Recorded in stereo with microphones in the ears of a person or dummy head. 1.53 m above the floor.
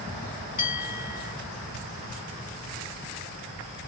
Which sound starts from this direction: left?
A bell, at 0.6 s.